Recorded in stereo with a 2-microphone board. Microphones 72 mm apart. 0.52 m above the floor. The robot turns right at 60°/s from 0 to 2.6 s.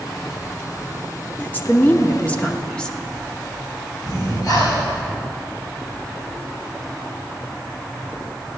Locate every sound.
1.4 s a woman speaking: 25° left (ahead or behind), 0.8 m; by 3.0 s 10° left (ahead or behind), 0.8 m
4.0 s breathing: 60° left (ahead or behind), 3 m